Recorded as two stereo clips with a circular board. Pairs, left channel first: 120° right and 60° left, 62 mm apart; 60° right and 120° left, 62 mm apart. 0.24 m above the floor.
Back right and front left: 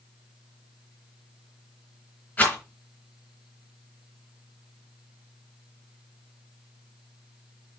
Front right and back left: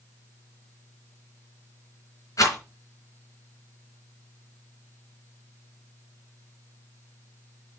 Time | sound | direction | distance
2.4 | a rattle | 55° right | 3 m